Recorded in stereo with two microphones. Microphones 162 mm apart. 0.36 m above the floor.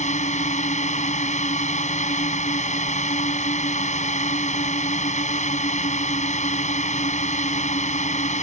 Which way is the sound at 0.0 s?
50° left (ahead or behind).